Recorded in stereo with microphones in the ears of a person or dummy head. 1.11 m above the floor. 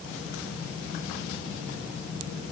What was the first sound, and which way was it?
Only background noise.